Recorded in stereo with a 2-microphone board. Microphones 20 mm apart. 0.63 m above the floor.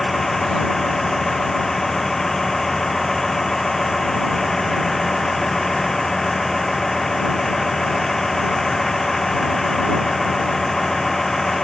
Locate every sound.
0.0 s a vehicle: 15° left (ahead or behind)